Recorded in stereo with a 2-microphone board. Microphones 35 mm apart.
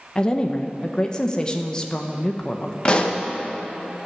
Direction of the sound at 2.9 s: 30° left (ahead or behind).